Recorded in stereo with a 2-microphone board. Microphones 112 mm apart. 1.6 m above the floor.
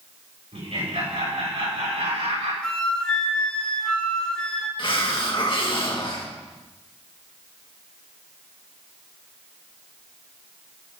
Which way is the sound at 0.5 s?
65° right (ahead or behind).